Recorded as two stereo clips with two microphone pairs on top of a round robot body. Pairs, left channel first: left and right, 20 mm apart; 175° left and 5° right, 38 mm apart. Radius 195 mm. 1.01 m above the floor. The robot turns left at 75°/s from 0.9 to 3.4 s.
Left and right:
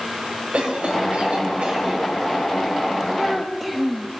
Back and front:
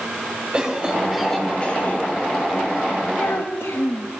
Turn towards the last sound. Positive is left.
turn(degrees=180)